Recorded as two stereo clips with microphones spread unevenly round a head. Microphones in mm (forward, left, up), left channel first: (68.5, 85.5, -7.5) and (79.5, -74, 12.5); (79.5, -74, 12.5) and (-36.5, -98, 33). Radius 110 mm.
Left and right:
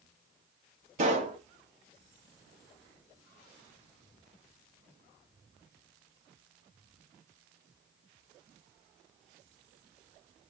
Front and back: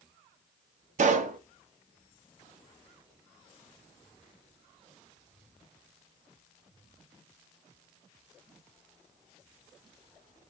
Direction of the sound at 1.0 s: 150° right.